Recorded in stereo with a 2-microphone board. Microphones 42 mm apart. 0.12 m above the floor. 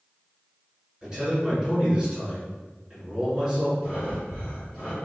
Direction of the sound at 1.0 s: 10° right (ahead or behind).